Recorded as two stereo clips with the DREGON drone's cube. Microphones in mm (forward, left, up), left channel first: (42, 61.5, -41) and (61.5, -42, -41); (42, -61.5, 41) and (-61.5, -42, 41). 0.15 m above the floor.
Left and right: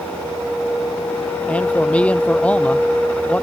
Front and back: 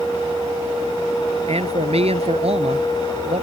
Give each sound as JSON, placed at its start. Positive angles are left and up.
{"t": 1.5, "sound": "a man speaking", "azimuth_deg": 180}